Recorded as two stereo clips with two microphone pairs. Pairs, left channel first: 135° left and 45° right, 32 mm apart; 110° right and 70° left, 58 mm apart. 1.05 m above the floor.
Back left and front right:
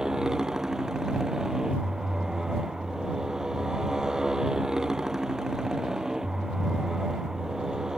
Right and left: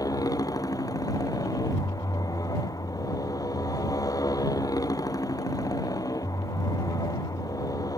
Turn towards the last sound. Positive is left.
turn(degrees=-115)